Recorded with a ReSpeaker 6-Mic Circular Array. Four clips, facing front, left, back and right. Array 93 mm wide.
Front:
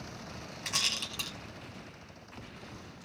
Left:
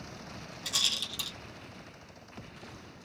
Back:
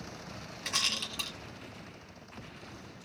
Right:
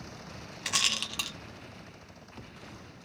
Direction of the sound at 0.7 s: 95° right.